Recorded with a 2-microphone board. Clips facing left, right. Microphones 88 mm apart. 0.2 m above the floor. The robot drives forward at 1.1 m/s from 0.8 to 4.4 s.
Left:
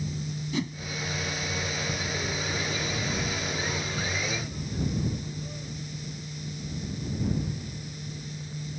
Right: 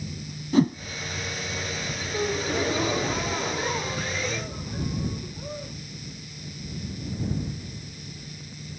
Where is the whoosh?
45° right (ahead or behind).